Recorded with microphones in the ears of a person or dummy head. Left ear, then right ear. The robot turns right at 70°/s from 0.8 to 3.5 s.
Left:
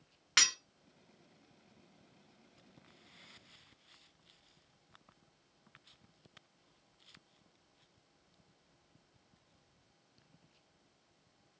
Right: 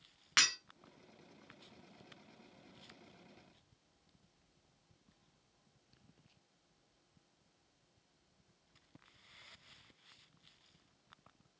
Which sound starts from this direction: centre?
Breaking glass, at 0.4 s.